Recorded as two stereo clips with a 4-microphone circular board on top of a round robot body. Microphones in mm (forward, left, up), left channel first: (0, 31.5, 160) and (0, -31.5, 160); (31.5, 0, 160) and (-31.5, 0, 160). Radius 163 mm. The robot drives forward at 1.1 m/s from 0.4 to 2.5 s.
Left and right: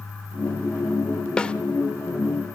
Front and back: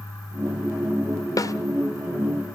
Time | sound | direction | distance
1.4 | a snare drum | 15° left | 1.1 m